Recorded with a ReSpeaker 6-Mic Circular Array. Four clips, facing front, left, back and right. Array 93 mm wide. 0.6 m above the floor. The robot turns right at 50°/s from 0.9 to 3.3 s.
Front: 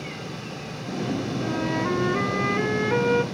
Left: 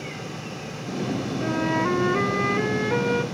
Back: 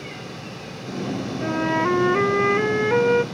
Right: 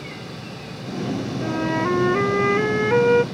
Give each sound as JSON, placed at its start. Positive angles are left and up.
{"t": 1.4, "sound": "a flute", "azimuth_deg": 165, "distance_m": 0.6}